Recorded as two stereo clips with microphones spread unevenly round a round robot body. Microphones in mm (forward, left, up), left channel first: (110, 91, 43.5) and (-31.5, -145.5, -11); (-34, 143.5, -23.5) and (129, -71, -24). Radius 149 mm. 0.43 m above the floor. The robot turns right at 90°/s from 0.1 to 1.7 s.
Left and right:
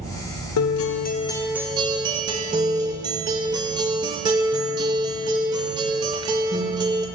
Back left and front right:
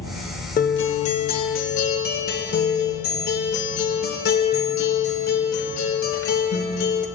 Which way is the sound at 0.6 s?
75° left.